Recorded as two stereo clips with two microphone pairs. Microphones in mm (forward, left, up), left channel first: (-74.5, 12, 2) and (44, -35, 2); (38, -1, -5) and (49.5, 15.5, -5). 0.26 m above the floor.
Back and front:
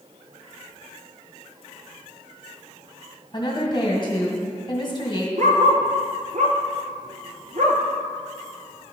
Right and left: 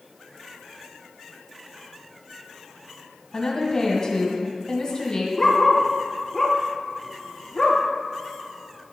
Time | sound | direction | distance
3.3 | a woman speaking | 160° right | 1.8 m
5.4 | a dog barking | 40° right | 1.3 m